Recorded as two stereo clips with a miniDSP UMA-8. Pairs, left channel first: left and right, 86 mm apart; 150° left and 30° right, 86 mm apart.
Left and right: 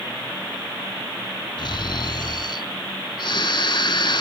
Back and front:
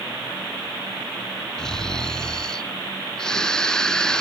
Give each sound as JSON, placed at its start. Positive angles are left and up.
{"t": 1.6, "sound": "snoring", "azimuth_deg": 70, "distance_m": 0.8}